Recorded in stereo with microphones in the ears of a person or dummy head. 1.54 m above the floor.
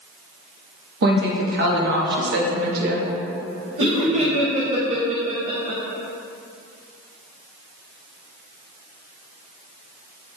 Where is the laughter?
35° right (ahead or behind), 0.7 m.